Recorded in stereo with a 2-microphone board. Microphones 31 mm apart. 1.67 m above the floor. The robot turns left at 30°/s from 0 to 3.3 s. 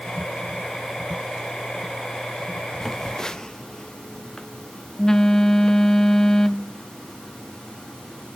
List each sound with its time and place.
2.8 s a phone buzzing: 5° left (ahead or behind), 0.6 m; by 8.4 s 20° left (ahead or behind), 0.6 m